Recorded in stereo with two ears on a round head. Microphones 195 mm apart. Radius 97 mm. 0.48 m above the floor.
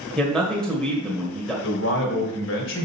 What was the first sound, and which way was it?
A man speaking, 5° left (ahead or behind).